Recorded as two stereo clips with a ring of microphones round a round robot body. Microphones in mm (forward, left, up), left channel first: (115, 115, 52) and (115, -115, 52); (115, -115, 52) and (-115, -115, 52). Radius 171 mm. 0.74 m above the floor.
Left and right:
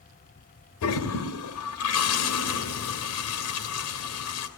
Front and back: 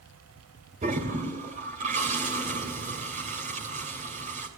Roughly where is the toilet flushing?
Behind left.